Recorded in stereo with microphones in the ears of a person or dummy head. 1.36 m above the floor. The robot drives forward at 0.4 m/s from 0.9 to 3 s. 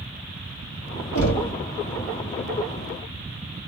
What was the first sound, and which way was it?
Knocking, 85° left.